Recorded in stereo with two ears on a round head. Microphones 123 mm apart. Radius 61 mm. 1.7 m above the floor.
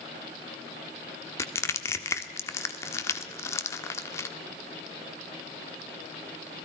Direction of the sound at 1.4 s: 20° left (ahead or behind).